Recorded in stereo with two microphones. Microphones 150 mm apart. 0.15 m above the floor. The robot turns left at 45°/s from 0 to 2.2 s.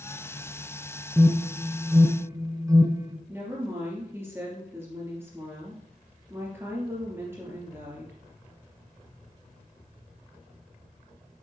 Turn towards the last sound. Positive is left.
turn(degrees=-15)  # may be behind; listen again after turning